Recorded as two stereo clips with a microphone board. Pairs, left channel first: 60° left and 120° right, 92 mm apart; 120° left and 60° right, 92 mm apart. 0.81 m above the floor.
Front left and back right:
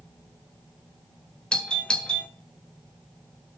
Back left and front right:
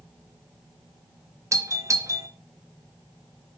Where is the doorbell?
20° right, 1.4 m.